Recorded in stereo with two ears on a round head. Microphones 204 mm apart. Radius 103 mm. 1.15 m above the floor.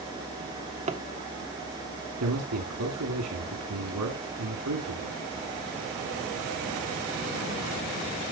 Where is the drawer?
30° right (ahead or behind), 1.1 m.